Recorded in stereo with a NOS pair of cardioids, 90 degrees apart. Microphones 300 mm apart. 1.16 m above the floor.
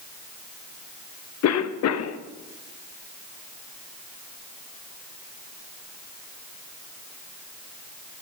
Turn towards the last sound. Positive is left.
turn(degrees=55)